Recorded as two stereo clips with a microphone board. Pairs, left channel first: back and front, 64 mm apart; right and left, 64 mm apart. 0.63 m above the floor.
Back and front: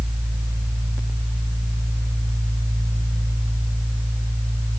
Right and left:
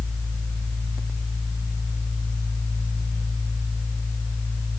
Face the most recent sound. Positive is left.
No sound to turn to.